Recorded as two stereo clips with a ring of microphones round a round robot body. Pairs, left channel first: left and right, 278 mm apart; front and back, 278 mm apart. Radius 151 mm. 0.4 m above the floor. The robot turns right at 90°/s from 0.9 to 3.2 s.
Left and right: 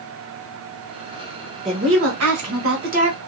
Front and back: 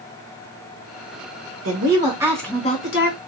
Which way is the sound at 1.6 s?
155° right.